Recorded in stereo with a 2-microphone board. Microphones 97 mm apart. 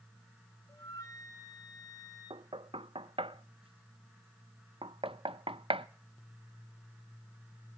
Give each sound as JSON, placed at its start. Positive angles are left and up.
{"t": 0.7, "sound": "a flute", "side_deg": 35, "distance_m": 1.9}
{"t": 2.3, "sound": "knocking", "side_deg": -65, "distance_m": 0.7}